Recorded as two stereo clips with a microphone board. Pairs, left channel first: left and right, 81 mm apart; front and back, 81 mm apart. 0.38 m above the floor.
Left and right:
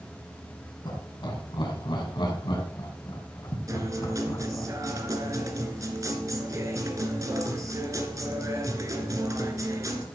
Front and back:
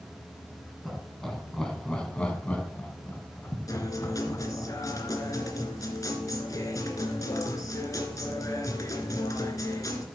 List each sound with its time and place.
0.8 s laughter: 90° left, 4.5 m; by 4.7 s 40° left, 3.5 m
3.7 s a guitar: 45° right, 2.5 m